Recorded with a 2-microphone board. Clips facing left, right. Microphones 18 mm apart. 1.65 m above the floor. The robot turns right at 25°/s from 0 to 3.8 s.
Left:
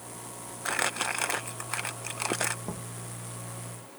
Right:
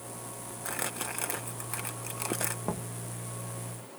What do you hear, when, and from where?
0.7 s crumpling: 30° left (ahead or behind); by 2.5 s 20° left (ahead or behind)
2.6 s knocking: 30° right (ahead or behind); by 3.0 s 40° right (ahead or behind)